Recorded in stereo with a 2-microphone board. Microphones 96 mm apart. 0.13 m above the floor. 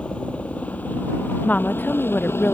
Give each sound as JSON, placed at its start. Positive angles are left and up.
{"t": 0.0, "sound": "a helicopter", "side_deg": 10}
{"t": 1.4, "sound": "a woman speaking", "side_deg": 15}